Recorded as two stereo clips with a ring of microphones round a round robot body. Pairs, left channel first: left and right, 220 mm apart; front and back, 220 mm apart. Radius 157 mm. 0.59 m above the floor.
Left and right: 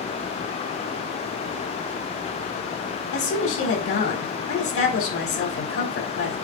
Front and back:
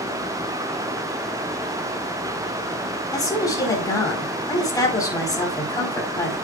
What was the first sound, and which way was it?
A woman speaking, 75° left.